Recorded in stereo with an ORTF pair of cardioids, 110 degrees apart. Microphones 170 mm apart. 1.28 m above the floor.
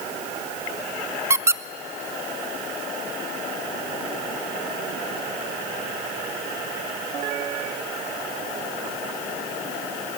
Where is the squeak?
15° right, 0.5 m.